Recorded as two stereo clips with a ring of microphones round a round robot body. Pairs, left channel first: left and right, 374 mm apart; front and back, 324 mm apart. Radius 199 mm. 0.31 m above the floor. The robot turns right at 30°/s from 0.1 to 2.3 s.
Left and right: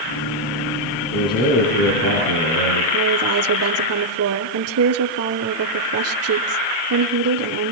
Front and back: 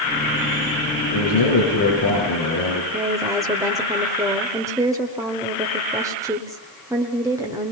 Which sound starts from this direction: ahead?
A man speaking, at 1.1 s.